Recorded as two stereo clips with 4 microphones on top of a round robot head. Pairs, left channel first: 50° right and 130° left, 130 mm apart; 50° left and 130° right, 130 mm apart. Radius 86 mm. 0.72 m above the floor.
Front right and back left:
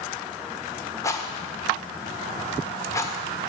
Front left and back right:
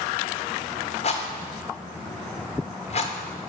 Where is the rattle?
15° left, 1.5 m.